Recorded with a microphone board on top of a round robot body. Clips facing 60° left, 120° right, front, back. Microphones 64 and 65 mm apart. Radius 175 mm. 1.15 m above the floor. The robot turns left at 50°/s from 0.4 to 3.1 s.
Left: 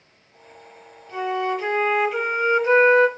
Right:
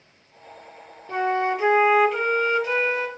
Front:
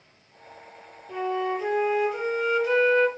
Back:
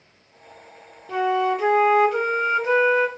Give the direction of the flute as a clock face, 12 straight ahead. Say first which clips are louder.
Right 1 dB, back 6 dB; 5 o'clock.